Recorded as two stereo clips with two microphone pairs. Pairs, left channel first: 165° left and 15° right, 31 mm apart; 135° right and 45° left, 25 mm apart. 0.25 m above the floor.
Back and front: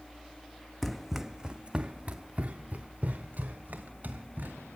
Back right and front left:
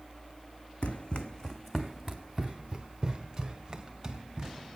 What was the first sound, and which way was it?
Running footsteps, 110° right.